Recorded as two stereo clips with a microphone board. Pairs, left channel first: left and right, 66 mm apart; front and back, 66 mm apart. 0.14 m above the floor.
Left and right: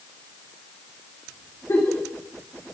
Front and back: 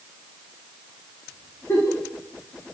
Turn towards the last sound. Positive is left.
turn(degrees=50)